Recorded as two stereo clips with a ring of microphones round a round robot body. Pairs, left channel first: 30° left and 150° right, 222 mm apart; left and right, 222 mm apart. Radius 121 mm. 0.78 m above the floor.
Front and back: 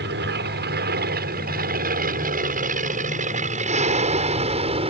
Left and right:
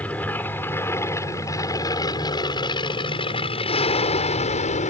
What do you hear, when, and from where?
0.0 s an aircraft: 175° left; by 4.9 s 145° left